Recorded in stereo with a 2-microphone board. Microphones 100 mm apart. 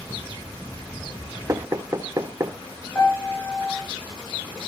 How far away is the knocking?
About 0.5 m.